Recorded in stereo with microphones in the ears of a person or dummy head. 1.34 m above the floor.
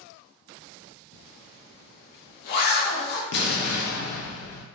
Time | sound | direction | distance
1.1 | a zipper | 55° left (ahead or behind) | 0.6 m
3.3 | an explosion | 60° left (ahead or behind) | 0.5 m